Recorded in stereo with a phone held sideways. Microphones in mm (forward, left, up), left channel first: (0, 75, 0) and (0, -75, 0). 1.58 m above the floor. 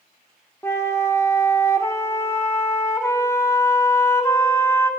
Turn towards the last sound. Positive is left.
turn(degrees=15)  # may be behind; listen again after turning